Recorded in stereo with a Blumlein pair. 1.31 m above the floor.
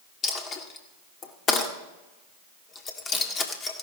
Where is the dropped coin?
25° left, 1.7 m.